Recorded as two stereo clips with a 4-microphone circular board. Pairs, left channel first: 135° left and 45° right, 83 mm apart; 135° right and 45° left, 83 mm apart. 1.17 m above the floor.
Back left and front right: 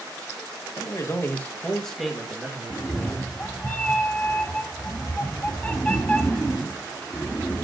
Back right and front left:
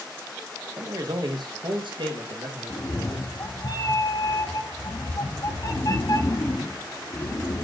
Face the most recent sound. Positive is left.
turn(degrees=-160)